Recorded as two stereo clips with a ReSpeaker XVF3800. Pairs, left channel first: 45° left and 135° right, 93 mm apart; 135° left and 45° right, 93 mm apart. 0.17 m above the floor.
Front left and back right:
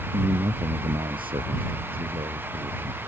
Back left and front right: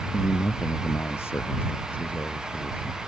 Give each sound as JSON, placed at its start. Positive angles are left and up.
{"t": 0.1, "sound": "a man speaking", "azimuth_deg": -165}